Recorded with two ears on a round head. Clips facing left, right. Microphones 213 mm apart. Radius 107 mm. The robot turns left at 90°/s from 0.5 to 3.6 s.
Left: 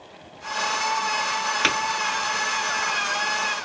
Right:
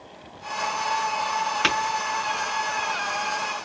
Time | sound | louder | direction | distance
1.6 | tapping | left 1 dB | 5° right (ahead or behind) | 2 m